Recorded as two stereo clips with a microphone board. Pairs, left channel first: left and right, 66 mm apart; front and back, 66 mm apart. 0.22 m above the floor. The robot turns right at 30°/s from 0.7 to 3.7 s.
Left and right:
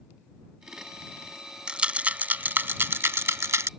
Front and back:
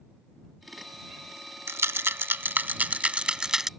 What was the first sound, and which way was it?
A rattle, 160° right.